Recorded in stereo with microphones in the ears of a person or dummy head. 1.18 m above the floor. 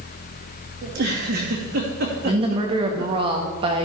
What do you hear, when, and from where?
0.8 s a giggle: 50° right (ahead or behind), 2.5 m
2.2 s a woman speaking: 25° right (ahead or behind), 1.6 m